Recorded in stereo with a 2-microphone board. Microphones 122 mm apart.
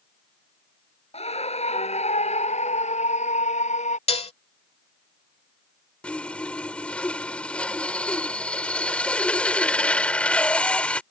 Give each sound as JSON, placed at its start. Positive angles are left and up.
{"t": 1.1, "sound": "a scream", "side_deg": 60}
{"t": 4.1, "sound": "dishes clattering", "side_deg": 55}
{"t": 6.0, "sound": "sawing", "side_deg": 10}